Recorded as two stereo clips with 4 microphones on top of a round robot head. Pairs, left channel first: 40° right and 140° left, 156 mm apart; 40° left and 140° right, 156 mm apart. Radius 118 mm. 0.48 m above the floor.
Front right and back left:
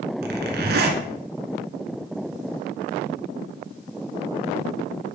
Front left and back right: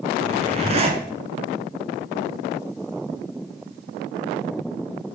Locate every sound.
0.2 s a zipper: 165° left, 1.2 m